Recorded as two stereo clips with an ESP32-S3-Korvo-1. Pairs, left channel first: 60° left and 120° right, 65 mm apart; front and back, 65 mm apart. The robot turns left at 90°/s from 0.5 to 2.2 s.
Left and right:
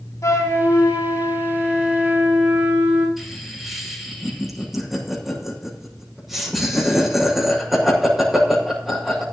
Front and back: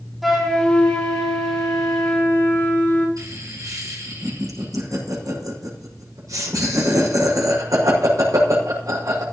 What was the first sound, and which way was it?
A flute, 90° left.